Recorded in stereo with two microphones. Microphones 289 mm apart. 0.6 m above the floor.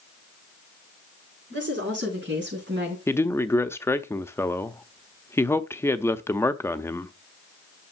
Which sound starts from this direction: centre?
A man speaking, at 3.1 s.